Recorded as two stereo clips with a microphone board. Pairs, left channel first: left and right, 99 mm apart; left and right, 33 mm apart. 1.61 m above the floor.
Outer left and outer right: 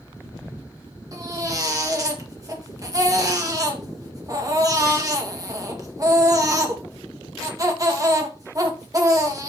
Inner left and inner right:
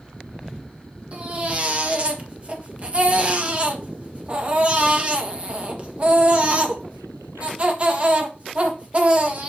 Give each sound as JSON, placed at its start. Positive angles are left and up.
{"t": 1.1, "sound": "a baby crying", "side_deg": -35, "distance_m": 1.6}